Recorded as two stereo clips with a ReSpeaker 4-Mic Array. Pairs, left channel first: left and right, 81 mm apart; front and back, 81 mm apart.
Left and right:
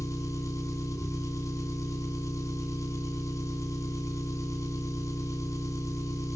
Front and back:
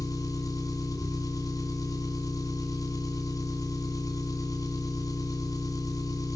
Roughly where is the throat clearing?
No throat clearing in this recording.